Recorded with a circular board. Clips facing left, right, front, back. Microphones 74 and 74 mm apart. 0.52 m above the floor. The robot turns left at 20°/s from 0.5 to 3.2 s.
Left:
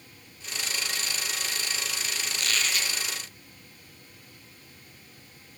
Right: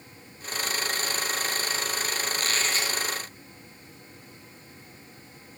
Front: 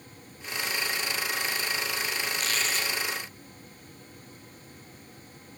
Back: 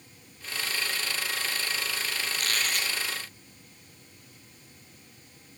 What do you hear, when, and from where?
2.3 s a squeak: 140° right, 2 m; by 3.0 s 155° right, 2 m